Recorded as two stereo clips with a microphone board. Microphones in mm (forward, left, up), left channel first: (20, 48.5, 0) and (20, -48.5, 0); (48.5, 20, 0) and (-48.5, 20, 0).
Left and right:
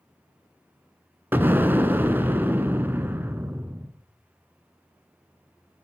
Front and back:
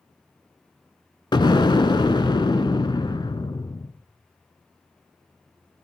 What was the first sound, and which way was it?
An explosion, 25° right.